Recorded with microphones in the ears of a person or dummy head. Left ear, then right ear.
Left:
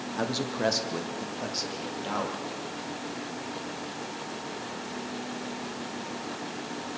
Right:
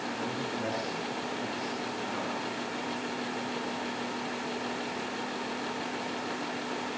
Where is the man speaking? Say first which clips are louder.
Left 4 dB; 80° left, 1.5 m; by 2.4 s 65° left (ahead or behind), 5 m.